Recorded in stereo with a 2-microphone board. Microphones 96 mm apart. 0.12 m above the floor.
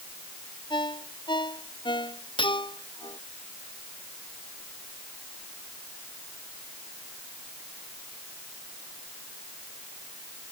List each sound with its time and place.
0.7 s a ringtone: 55° left (ahead or behind)
2.4 s cutlery clinking: 60° left (ahead or behind)